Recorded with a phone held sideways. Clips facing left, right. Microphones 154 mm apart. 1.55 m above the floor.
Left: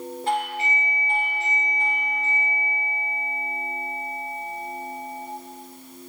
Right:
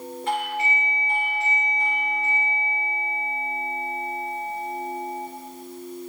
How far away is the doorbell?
About 3 m.